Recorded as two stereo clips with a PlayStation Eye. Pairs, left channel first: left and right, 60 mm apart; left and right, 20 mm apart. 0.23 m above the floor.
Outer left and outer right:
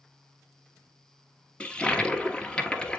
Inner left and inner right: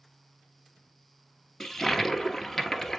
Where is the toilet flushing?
15° left (ahead or behind), 1.1 m.